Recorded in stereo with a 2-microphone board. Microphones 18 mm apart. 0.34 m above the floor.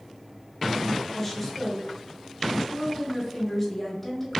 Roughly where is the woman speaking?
Centre.